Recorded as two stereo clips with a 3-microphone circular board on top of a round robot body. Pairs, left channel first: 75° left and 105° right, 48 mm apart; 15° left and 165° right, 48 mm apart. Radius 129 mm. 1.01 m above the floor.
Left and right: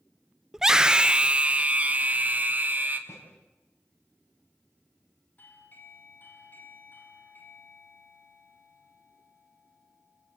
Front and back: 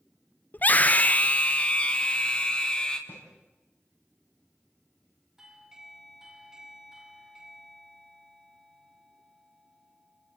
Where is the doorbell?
125° left, 3.5 m.